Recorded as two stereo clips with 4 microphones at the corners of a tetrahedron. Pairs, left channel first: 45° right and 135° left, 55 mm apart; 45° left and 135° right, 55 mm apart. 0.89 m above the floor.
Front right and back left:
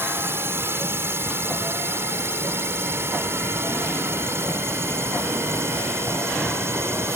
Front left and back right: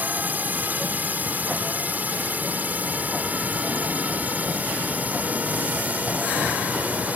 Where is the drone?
170° left; by 7.2 s 165° left.